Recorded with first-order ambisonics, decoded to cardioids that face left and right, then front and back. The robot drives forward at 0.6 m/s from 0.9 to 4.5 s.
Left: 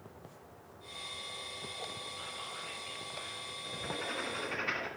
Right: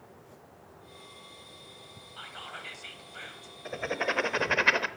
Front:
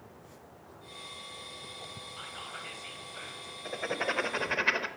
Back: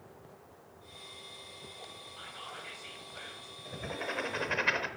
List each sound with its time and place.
2.2 s whispering: 75° right, 3 m; by 3.6 s 90° right, 2.5 m
3.6 s writing: 50° right, 0.9 m; by 4.9 s 85° right, 0.7 m